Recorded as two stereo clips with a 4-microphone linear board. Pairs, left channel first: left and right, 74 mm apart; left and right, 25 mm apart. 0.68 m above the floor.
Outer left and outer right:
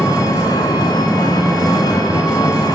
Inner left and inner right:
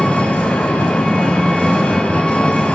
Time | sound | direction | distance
0.0 | an engine running | 65° left (ahead or behind) | 1.7 m